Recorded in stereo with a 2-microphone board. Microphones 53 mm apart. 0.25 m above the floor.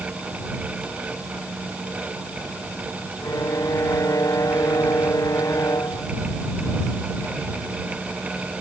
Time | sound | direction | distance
3.2 | a violin | 80° left | ?